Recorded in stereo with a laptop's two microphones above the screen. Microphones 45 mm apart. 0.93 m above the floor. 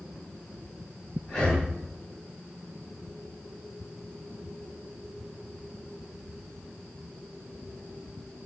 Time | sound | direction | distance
1.3 | breathing | 10° left (ahead or behind) | 4 m